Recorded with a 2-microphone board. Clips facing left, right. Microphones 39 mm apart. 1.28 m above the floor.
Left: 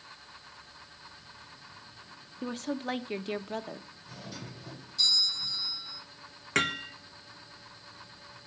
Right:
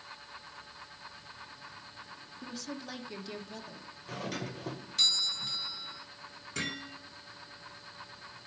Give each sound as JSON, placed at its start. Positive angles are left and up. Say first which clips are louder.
{"t": 2.4, "sound": "a woman speaking", "louder": "left 8 dB", "side_deg": 45, "distance_m": 1.2}
{"t": 4.1, "sound": "a doorbell", "louder": "right 7 dB", "side_deg": -65, "distance_m": 1.6}
{"t": 6.5, "sound": "hammering", "louder": "left 8 dB", "side_deg": 75, "distance_m": 2.0}